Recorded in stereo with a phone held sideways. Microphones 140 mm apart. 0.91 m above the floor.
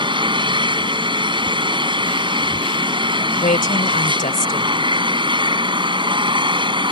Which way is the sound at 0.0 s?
35° right (ahead or behind).